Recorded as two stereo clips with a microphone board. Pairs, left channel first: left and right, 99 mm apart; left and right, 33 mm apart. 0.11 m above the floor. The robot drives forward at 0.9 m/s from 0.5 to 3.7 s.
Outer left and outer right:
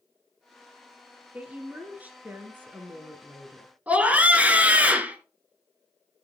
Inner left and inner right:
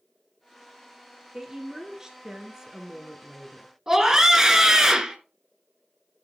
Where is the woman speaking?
15° right (ahead or behind), 2.5 m.